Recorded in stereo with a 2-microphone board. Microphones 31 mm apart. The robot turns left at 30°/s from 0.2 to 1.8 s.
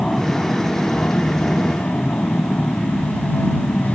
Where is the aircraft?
150° left; by 4.0 s 105° left.